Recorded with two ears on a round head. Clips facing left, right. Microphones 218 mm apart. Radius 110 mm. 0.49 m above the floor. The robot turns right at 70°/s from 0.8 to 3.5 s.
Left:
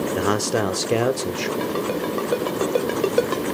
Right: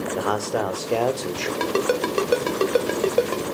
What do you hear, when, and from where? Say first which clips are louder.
0.1 s a man speaking: left 2 dB; 135° left, 1.0 m; by 1.5 s 175° right, 1.0 m
1.6 s a ringtone: right 5 dB; 65° right (ahead or behind), 1.5 m; by 3.4 s 30° left (ahead or behind), 1.5 m